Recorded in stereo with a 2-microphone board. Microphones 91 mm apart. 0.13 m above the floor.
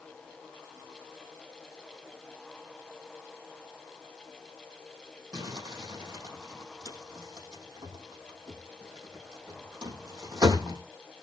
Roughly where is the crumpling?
Right.